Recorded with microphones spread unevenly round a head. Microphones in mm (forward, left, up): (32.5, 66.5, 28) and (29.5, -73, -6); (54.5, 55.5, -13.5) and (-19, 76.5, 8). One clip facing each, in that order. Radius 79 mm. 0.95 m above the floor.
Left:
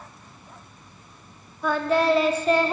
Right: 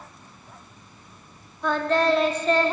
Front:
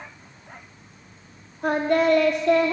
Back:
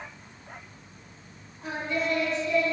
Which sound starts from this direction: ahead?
Singing, at 1.6 s.